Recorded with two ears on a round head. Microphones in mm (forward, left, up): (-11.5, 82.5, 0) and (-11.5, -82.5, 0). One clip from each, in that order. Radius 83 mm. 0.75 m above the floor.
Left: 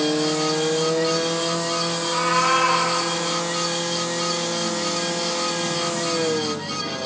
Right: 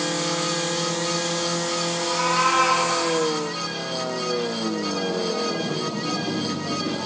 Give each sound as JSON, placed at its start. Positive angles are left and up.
{"t": 2.0, "sound": "a cat meowing", "side_deg": 0, "distance_m": 3.0}